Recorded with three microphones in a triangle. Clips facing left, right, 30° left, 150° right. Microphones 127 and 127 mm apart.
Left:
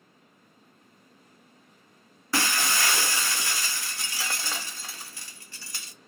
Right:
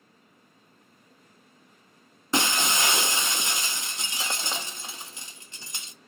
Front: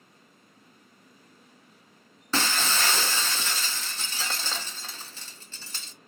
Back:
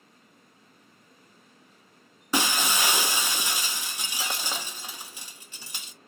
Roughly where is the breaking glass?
Right.